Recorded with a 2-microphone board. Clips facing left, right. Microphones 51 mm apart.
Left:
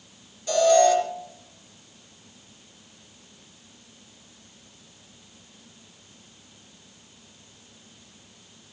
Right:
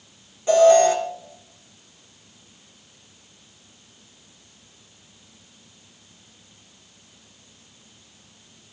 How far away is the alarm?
About 4 m.